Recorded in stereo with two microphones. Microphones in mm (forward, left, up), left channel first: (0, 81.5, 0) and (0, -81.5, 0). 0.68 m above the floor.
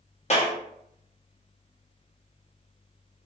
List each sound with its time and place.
0.3 s a clap: 45° left (ahead or behind), 0.8 m